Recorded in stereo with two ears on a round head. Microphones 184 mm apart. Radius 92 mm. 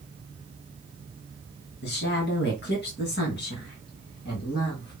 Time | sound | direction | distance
1.8 | a woman speaking | 55° left (ahead or behind) | 2.5 m